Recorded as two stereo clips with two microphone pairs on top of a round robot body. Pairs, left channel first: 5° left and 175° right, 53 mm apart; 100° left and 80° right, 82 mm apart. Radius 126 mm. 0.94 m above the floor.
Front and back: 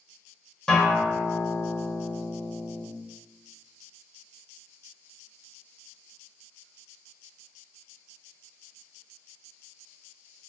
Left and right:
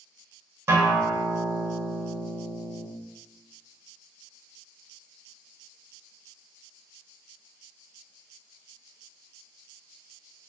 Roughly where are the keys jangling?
I don't hear keys jangling.